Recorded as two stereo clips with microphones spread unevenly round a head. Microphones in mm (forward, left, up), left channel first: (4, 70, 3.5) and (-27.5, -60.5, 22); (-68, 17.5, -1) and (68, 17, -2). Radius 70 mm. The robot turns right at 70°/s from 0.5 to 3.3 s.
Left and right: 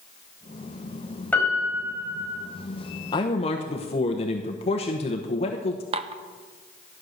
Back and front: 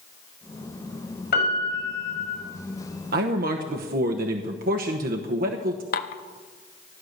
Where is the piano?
155° left, 4.5 m; by 2.4 s 130° right, 4.5 m.